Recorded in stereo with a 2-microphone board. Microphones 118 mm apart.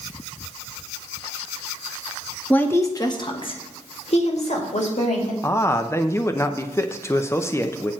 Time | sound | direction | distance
2.5 | a woman speaking | 10° left (ahead or behind) | 1.2 m
5.4 | a man speaking | 20° left (ahead or behind) | 0.7 m